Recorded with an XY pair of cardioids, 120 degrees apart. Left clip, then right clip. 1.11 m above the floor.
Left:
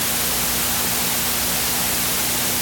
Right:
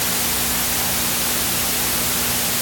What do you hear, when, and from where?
Only background noise.